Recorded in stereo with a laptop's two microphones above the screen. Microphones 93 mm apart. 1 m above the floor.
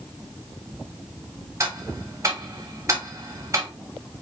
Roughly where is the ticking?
Right.